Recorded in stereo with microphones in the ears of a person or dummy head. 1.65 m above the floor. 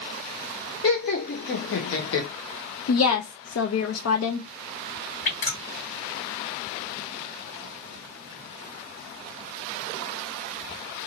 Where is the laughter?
35° left (ahead or behind), 0.7 m; by 2.3 s 80° left, 1.0 m.